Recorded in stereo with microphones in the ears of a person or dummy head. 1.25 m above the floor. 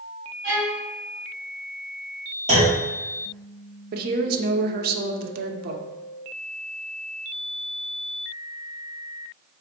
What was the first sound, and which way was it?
A violin, 60° right (ahead or behind).